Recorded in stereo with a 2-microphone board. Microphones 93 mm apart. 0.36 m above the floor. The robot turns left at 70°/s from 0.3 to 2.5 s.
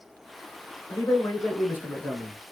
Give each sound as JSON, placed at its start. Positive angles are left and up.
{"t": 0.9, "sound": "a man speaking", "azimuth_deg": 100, "distance_m": 1.1}